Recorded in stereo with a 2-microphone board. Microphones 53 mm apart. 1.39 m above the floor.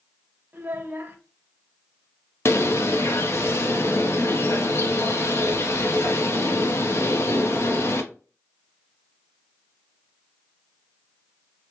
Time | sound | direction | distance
0.5 | a child speaking | 40° right (ahead or behind) | 0.8 m
2.5 | a bird | 50° left (ahead or behind) | 0.6 m